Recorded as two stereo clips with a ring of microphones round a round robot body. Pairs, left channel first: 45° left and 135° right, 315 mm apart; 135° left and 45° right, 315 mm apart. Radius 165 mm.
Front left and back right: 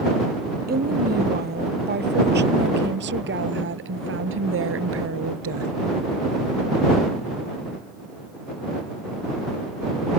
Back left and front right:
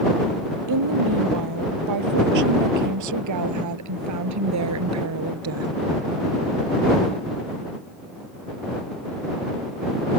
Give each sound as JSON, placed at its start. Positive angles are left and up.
{"t": 0.7, "sound": "a woman speaking", "azimuth_deg": -75}